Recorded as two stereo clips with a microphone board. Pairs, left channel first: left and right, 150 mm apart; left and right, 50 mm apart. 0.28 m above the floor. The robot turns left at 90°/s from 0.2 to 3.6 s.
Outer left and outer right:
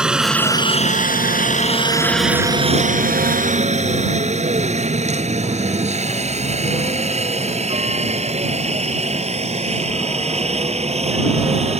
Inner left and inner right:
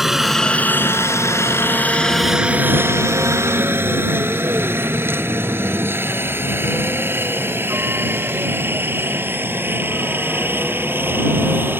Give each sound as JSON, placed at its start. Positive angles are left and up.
{"t": 0.0, "sound": "a helicopter", "side_deg": -5}